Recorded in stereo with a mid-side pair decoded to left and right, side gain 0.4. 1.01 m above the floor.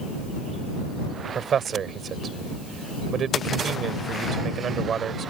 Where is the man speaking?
60° right.